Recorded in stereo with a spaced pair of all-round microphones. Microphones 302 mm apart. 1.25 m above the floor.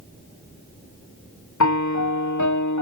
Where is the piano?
65° left (ahead or behind).